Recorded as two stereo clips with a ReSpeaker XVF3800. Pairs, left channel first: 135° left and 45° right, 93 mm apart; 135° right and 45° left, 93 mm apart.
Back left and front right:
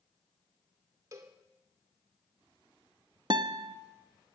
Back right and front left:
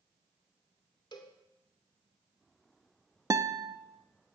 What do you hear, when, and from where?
1.1 s a cowbell: 100° right, 1.9 m
3.3 s a guitar: 5° right, 0.8 m